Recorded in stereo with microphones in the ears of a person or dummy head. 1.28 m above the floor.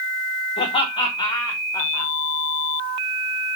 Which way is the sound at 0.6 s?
30° left (ahead or behind).